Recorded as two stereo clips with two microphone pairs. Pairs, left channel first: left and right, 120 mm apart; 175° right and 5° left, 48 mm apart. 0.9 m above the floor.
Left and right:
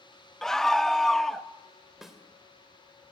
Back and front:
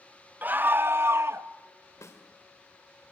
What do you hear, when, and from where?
0.4 s a scream: 5° left, 0.6 m; by 1.5 s straight ahead, 1.1 m
2.0 s a snare drum: straight behind, 2.5 m